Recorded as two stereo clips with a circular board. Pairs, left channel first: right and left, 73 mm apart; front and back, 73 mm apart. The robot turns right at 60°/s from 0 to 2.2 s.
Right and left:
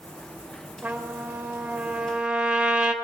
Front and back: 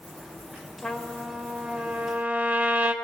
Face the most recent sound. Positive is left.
turn(degrees=145)